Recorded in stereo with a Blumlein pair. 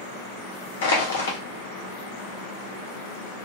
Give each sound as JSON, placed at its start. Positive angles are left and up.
{"t": 0.8, "sound": "crushing", "azimuth_deg": 65, "distance_m": 1.0}